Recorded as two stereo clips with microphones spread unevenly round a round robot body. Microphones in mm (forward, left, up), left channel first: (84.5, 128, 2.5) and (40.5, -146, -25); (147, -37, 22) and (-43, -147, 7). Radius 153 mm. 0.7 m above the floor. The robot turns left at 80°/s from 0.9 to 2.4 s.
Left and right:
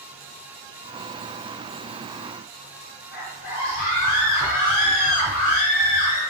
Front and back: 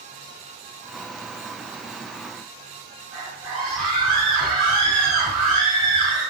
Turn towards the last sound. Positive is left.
turn(degrees=145)